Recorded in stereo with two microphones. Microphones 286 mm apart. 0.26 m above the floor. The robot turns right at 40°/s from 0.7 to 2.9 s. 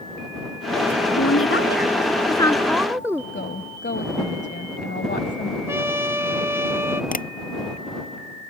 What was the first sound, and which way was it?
A woman speaking, 115° left.